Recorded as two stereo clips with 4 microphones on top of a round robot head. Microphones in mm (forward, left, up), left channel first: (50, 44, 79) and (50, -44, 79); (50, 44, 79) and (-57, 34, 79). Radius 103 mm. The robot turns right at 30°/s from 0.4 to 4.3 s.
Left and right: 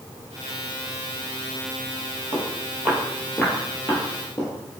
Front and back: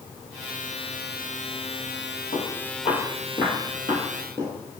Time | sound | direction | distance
2.3 | footsteps | 30° right | 2 m